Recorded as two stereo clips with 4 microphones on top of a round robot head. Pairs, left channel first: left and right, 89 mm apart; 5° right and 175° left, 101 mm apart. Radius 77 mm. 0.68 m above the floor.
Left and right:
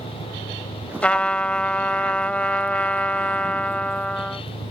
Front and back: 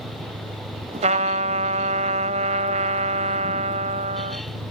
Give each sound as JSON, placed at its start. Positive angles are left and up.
{"t": 0.0, "sound": "a vehicle", "azimuth_deg": -160}
{"t": 1.0, "sound": "a trumpet", "azimuth_deg": 170}